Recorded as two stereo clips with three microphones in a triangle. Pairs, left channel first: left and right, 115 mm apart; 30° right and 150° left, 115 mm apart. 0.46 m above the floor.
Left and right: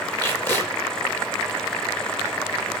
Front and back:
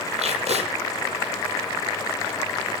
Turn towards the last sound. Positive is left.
turn(degrees=160)